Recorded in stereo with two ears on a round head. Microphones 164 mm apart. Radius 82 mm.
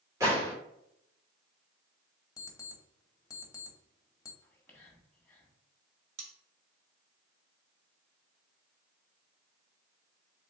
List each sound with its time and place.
0.2 s a gunshot: 20° right (ahead or behind), 2 m
2.4 s an alarm clock: 20° left (ahead or behind), 1.0 m
4.4 s whispering: 10° left (ahead or behind), 1.6 m
6.2 s cutlery clinking: 85° right, 1.3 m